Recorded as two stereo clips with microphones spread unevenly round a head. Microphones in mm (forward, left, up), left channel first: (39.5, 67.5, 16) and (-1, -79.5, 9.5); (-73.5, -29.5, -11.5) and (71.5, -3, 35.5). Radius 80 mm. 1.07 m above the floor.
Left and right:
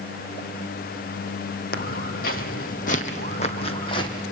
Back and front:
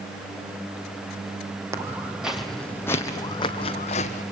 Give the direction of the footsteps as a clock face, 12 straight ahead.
10 o'clock.